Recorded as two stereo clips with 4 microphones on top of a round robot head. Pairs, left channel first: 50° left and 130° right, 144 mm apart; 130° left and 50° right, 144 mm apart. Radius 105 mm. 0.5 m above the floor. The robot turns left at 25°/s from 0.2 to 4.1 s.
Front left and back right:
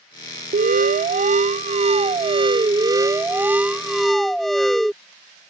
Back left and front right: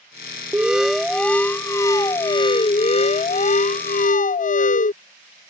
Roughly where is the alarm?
Behind right.